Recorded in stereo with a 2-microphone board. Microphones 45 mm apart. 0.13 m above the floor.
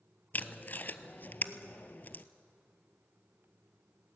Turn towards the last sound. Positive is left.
turn(degrees=40)  # may be behind; listen again after turning